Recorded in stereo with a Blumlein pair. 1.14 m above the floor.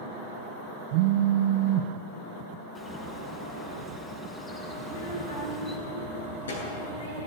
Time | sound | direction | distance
0.9 | a phone buzzing | 45° right | 0.7 m
2.8 | a bird | 10° left | 6 m
4.8 | a child speaking | 70° left | 8 m